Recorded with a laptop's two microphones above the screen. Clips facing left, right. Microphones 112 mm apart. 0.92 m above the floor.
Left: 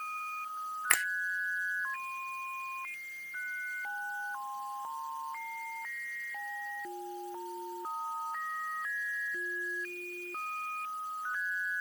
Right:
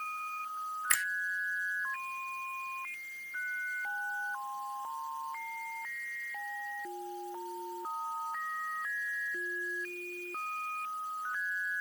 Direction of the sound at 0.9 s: 65° left (ahead or behind).